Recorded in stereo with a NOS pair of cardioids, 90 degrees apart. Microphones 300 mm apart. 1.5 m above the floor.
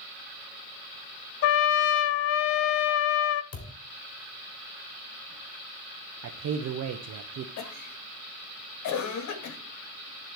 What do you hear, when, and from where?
1.4 s a trumpet: 55° left, 0.6 m
3.5 s a thud: 55° left, 2.5 m
6.2 s a man speaking: 60° right, 1.1 m
7.6 s a cough: 70° left, 1.8 m